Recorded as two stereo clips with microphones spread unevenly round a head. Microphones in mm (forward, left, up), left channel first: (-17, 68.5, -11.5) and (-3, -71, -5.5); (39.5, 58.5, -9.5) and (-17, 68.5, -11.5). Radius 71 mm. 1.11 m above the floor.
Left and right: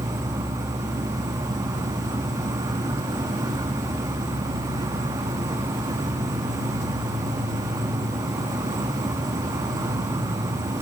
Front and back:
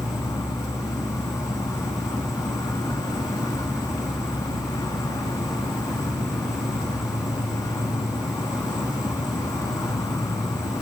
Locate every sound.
0.0 s an insect: 20° right, 0.8 m